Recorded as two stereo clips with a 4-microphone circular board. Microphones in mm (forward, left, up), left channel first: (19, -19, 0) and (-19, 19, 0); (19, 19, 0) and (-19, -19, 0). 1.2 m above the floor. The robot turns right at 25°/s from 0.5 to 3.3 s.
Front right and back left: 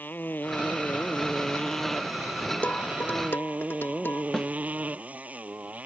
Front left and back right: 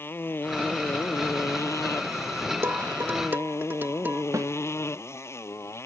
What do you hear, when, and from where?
0.0 s a motorcycle: 5° left; by 5.9 s 75° left
2.6 s dishes clattering: 105° right; by 4.2 s 90° right
4.3 s a snare drum: 125° right